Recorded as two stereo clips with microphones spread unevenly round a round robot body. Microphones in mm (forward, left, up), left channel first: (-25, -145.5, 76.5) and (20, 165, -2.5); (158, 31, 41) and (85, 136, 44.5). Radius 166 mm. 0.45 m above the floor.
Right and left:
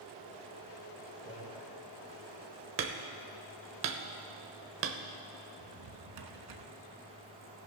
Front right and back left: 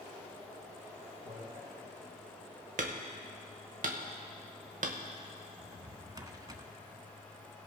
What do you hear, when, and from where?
1.2 s a man speaking: 175° right, 2.5 m
2.8 s hammering: 125° left, 0.9 m
5.6 s a drawer: 65° left, 1.2 m